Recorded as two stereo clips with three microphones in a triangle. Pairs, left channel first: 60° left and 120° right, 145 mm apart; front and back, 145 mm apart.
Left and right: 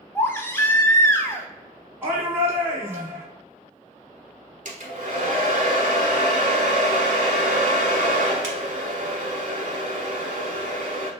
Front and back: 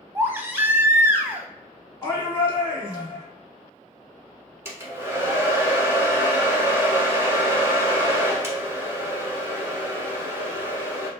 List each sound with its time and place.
0.1 s a baby crying: 115° left, 0.5 m
2.0 s a shout: 50° right, 1.4 m
4.7 s a hair dryer: 110° right, 0.8 m